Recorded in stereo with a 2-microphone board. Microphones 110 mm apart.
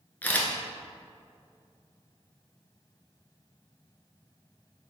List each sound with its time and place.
0.2 s a camera shutter: 15° left (ahead or behind), 0.6 m